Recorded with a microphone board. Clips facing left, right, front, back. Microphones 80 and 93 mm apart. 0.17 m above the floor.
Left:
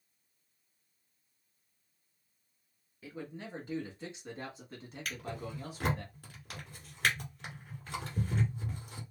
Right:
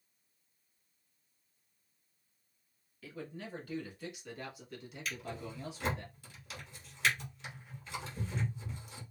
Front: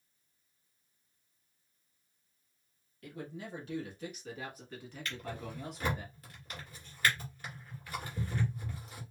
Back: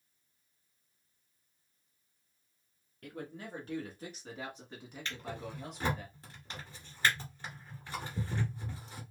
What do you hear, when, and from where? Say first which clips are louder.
3.0 s a man speaking: left 1 dB, even; 160° left, 1.7 m; by 6.0 s 75° left, 1.3 m
5.0 s a drawer: left 1 dB, even; 120° left, 1.6 m